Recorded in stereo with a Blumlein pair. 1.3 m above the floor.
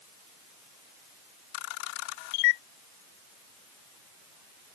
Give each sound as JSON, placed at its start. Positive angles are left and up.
{"t": 1.5, "sound": "a camera shutter", "azimuth_deg": 45}